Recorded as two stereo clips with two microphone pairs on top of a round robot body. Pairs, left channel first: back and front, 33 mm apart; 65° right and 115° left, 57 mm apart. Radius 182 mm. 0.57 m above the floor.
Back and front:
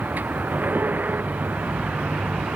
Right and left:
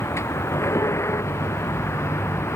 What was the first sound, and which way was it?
A vehicle, 30° right.